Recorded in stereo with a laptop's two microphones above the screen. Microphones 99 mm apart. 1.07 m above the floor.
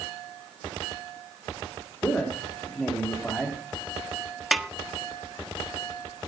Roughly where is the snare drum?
Centre.